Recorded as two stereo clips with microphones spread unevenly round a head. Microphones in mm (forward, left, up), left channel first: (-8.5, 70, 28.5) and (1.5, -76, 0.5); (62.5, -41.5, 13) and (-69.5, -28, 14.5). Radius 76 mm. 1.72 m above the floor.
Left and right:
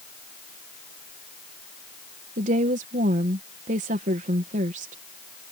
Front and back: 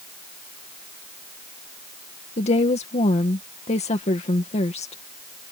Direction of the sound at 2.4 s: 45° right.